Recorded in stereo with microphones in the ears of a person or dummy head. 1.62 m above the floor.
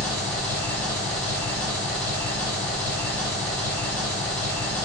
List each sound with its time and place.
0.0 s an engine running: 10° left (ahead or behind), 0.8 m